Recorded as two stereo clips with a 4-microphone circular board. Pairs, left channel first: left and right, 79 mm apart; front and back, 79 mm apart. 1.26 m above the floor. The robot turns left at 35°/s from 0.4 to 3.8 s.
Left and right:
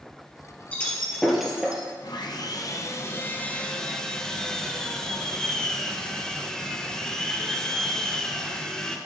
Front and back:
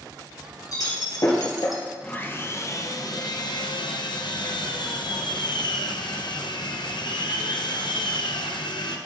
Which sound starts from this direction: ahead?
Breaking glass, at 0.7 s.